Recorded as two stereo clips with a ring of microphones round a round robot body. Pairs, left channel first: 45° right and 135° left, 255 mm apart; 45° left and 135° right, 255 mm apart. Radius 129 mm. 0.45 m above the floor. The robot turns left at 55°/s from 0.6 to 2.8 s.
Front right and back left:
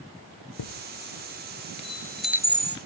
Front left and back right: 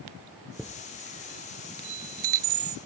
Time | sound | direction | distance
0.6 | a chime | 45° right | ?